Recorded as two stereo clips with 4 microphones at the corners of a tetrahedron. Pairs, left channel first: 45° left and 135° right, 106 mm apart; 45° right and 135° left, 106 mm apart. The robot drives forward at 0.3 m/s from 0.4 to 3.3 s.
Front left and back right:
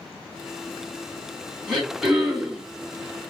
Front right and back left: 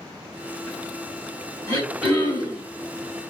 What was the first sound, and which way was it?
Throat clearing, 135° left.